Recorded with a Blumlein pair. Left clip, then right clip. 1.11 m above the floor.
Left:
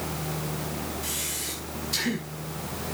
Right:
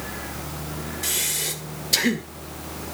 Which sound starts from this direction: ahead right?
Breathing, at 1.0 s.